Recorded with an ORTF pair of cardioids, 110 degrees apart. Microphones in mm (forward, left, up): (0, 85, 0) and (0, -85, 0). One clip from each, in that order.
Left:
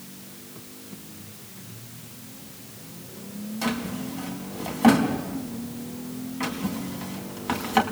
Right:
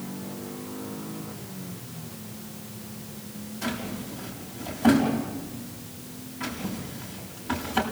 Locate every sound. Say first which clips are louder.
3.6 s a drawer: left 3 dB; 60° left, 4.5 m